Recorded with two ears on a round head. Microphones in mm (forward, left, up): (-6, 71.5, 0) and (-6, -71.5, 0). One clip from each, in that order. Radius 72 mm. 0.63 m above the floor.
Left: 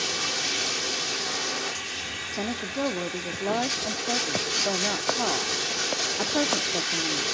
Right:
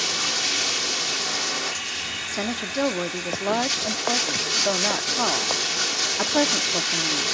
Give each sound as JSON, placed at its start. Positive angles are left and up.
{"t": 0.0, "sound": "running water", "side_deg": -20, "distance_m": 1.1}
{"t": 2.3, "sound": "a woman speaking", "side_deg": -55, "distance_m": 1.0}